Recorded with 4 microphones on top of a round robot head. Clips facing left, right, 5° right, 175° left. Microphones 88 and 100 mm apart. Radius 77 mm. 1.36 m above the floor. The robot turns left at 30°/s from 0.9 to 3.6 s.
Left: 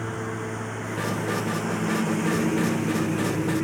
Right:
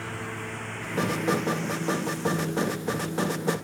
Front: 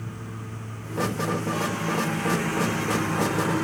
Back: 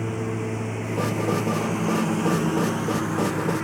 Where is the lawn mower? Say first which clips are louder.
Left 5 dB, back 11 dB; 155° left; by 3.6 s 75° left.